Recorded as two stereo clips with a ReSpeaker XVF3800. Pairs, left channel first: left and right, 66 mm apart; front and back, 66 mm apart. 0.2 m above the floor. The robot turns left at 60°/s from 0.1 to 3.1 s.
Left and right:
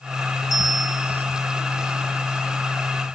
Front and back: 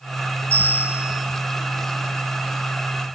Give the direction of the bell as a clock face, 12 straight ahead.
10 o'clock.